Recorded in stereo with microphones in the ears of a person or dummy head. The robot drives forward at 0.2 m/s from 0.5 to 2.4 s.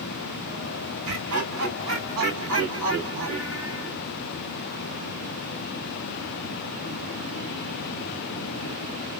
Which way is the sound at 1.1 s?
75° right (ahead or behind).